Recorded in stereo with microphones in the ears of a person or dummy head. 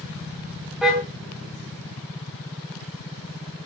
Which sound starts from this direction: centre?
A car horn, at 0.8 s.